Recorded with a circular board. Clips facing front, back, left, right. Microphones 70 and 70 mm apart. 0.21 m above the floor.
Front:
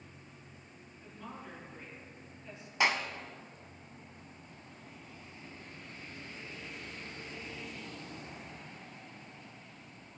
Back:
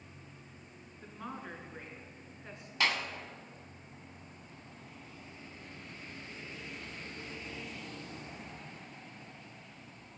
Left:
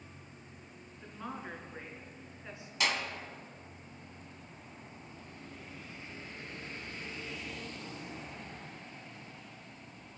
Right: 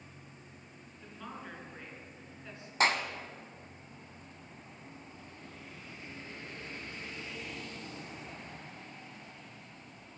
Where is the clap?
65° right, 1.0 m.